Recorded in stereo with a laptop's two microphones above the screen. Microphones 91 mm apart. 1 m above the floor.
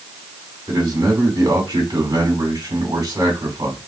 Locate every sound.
0.7 s a man speaking: 50° right (ahead or behind), 3 m